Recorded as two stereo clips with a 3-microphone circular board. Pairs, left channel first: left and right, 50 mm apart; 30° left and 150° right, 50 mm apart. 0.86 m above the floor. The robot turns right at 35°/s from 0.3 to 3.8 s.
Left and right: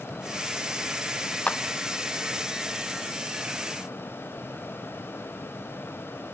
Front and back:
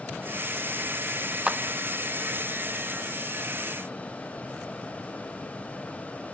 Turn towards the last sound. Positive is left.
turn(degrees=-130)